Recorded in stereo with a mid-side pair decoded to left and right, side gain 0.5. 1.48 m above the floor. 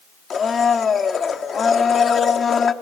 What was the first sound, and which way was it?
A blender, 45° left.